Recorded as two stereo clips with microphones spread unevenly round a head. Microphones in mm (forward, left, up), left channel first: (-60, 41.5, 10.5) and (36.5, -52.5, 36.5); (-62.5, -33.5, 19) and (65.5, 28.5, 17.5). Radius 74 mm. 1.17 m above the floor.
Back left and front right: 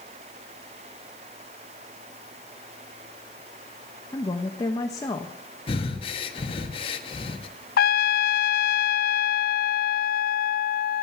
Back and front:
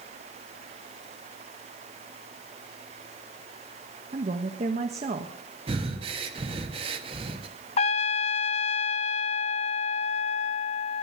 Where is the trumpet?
155° left, 0.5 m.